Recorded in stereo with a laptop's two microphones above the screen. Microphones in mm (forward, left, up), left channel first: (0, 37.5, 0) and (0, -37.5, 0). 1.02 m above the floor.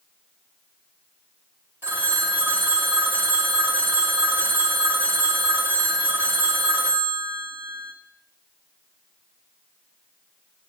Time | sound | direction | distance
1.8 | a phone ringing | 30° right (ahead or behind) | 0.8 m